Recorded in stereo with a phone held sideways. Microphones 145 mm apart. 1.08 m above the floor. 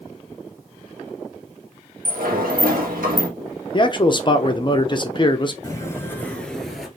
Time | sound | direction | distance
2.0 | a sliding door | 80° right | 1.0 m
3.7 | a man speaking | 35° left (ahead or behind) | 0.5 m
5.6 | footsteps | 20° left (ahead or behind) | 1.2 m